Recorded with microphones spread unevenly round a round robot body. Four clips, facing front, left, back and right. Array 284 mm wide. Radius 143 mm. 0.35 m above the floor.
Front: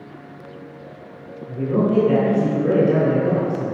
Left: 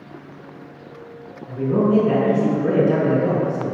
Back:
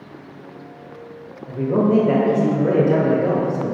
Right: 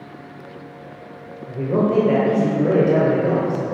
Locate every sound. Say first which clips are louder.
1.5 s a man speaking: left 1 dB, back 2 dB; 145° right, 1.3 m